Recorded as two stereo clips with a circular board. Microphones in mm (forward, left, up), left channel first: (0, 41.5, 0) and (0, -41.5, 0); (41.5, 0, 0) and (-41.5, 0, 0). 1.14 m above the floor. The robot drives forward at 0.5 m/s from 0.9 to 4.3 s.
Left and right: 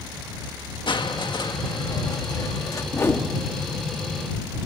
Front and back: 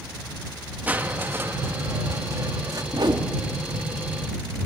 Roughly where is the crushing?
Left.